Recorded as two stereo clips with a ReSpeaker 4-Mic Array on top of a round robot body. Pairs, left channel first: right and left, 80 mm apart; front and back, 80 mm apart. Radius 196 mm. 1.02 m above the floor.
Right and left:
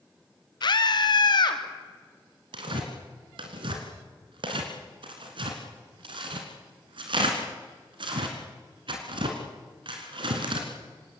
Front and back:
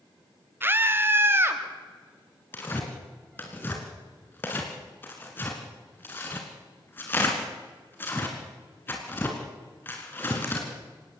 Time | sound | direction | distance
0.6 | a scream | 115° right | 2 m
2.5 | tearing paper | 65° left | 2 m